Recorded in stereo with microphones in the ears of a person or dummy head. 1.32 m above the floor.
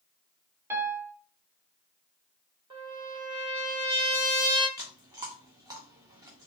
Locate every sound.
0.7 s a piano: 15° right (ahead or behind), 0.5 m
2.7 s a trumpet: 30° right (ahead or behind), 1.2 m
4.8 s chewing: 15° right (ahead or behind), 0.8 m